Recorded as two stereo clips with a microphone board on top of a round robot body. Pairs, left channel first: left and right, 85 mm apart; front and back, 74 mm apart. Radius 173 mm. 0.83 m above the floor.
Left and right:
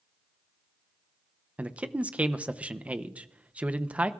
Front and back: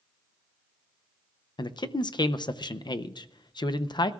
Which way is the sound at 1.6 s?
15° right.